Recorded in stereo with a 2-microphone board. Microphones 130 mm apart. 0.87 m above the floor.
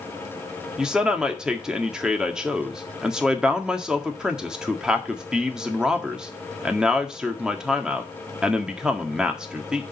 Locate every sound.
0.8 s a man speaking: 5° right (ahead or behind), 1.8 m